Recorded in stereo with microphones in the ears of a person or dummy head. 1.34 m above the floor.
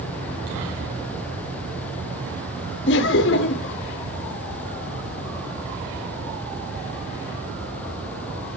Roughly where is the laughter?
Left.